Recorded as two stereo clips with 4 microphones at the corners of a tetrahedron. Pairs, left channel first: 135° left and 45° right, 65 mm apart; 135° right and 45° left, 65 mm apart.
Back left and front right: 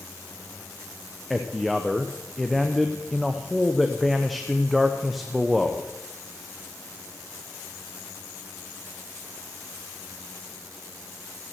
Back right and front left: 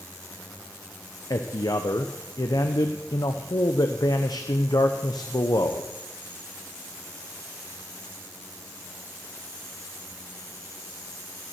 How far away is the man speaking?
About 0.7 m.